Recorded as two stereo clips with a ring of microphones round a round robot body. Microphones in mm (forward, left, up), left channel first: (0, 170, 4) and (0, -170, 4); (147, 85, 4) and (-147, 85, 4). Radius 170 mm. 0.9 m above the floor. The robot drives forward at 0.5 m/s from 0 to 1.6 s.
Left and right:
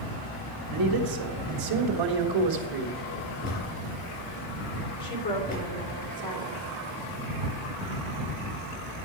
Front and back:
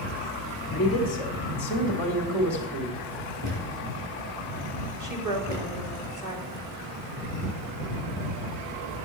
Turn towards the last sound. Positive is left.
turn(degrees=165)